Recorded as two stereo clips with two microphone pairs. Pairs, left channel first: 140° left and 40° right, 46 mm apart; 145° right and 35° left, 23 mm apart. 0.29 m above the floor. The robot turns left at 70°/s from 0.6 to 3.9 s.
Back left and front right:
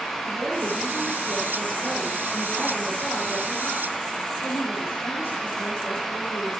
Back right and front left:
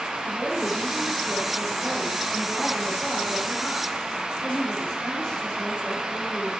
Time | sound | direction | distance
0.2 | a woman speaking | 25° left | 8.5 m